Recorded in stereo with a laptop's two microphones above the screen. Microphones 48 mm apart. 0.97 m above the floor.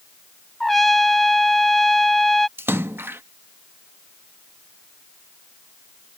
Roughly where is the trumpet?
Centre.